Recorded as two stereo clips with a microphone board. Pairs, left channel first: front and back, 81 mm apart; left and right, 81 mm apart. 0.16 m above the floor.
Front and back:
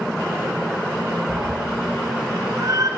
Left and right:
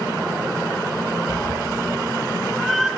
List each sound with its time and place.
1.3 s a cat meowing: 130° left, 1.3 m; by 2.9 s 170° right, 0.8 m